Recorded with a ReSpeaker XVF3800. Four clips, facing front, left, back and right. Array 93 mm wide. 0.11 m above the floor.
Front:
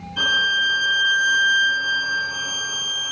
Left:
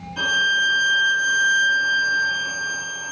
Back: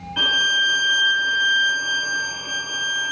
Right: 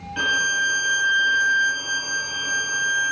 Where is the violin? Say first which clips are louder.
Left 1 dB, front 1 dB; 135° right, 2 m.